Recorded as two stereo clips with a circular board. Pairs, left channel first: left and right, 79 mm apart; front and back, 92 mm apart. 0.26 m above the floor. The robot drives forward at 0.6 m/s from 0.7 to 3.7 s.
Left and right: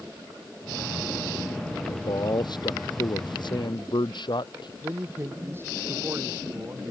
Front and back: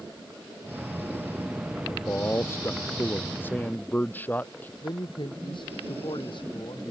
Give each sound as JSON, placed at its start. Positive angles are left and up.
{"t": 1.9, "sound": "a man speaking", "azimuth_deg": 65}
{"t": 4.8, "sound": "a man speaking", "azimuth_deg": -30}